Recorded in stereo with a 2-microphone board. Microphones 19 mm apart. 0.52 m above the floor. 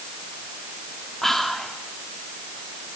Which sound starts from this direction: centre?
Whispering, at 1.2 s.